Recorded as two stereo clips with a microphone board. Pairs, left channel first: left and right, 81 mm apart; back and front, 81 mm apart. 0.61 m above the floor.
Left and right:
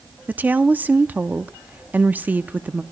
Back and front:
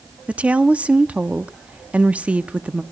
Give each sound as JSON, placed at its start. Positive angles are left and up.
{"t": 0.3, "sound": "a woman speaking", "azimuth_deg": -55, "distance_m": 0.6}